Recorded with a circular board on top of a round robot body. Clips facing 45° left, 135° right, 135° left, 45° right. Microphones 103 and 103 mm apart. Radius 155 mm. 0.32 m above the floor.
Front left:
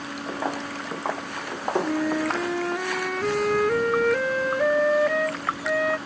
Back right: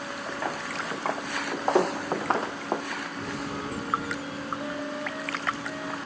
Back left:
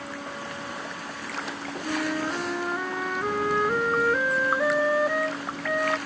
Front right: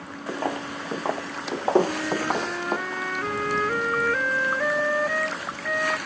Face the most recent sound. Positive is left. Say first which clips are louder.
# front left 4 dB, front right 2 dB
turn(degrees=55)